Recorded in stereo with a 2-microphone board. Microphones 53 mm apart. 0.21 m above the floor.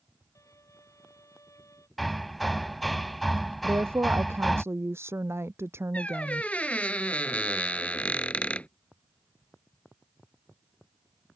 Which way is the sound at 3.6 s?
50° right (ahead or behind).